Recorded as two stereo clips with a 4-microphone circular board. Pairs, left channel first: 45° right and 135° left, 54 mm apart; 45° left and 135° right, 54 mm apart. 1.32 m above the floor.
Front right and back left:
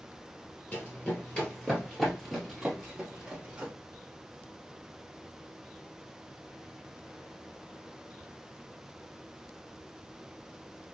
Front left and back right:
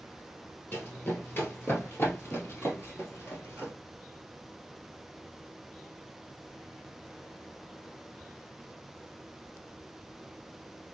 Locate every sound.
0.7 s running footsteps: straight ahead, 1.8 m; by 3.7 s 70° left, 2.0 m